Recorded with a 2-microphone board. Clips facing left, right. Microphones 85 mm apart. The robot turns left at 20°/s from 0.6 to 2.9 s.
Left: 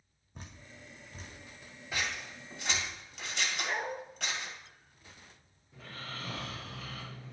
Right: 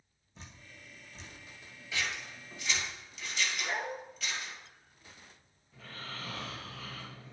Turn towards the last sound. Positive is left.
turn(degrees=15)  # may be behind; listen again after turning